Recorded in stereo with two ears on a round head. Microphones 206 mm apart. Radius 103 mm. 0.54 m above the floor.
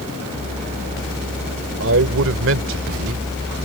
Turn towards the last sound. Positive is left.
turn(degrees=-60)  # may be behind; listen again after turning